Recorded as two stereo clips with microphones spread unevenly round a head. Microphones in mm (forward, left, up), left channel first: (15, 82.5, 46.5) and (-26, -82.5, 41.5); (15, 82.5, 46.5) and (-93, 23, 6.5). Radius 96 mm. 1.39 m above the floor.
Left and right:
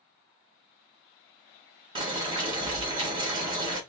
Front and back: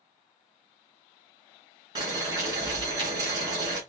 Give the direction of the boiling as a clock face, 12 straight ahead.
3 o'clock.